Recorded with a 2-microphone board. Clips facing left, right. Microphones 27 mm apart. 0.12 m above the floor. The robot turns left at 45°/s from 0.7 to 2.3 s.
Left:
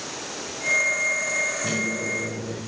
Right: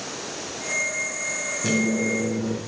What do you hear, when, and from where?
1.6 s a microwave: 75° right (ahead or behind), 6.5 m; by 2.6 s 50° right (ahead or behind), 6.5 m